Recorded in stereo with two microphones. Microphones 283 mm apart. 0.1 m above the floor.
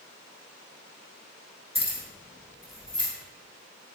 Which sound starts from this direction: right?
Keys jangling, at 1.8 s.